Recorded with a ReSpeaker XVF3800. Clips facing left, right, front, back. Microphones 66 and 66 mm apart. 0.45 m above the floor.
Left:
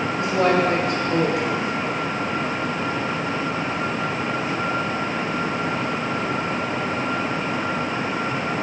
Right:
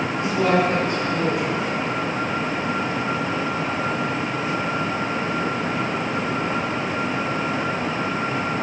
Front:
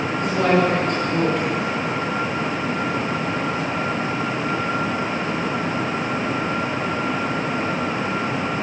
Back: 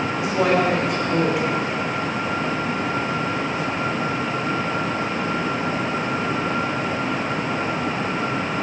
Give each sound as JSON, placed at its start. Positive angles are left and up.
{"t": 0.2, "sound": "a woman speaking", "azimuth_deg": 100, "distance_m": 5.0}